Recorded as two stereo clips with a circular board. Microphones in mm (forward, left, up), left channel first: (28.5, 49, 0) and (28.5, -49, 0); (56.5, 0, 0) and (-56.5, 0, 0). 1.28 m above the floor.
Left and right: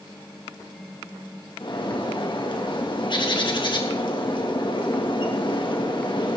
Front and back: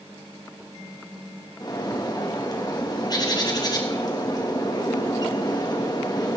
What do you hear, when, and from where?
1.6 s a bird: 55° left, 2 m